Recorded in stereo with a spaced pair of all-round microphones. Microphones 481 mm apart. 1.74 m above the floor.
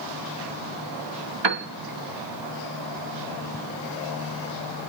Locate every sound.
1.4 s a piano: 60° right (ahead or behind), 0.8 m